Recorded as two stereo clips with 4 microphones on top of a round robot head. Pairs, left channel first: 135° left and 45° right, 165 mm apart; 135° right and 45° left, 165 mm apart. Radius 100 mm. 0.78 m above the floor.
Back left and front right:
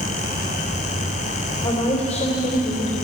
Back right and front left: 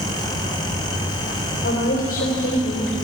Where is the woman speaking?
170° right, 3.5 m.